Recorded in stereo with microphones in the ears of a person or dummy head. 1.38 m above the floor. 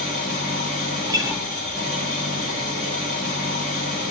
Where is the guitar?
20° right (ahead or behind), 0.6 m.